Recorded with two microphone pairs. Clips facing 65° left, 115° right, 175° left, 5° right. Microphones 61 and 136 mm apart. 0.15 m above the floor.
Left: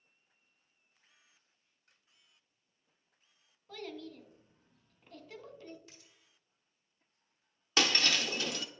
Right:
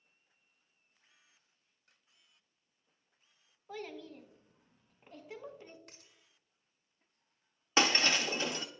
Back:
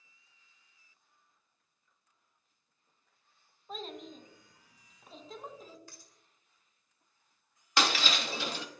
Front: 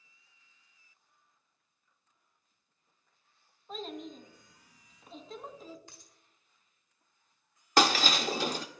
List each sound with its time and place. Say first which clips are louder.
3.7 s a child speaking: even, front 2 dB; 95° right, 0.7 m
5.9 s a dropped coin: even, back 1 dB; 75° right, 1.0 m
7.8 s breaking glass: right 2 dB, front 5 dB; 55° right, 0.7 m